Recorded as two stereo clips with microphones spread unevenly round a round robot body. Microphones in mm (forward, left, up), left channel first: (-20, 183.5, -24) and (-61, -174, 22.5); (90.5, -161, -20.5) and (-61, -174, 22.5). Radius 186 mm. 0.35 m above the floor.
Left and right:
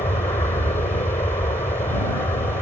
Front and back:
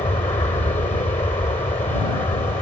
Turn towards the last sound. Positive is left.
turn(degrees=20)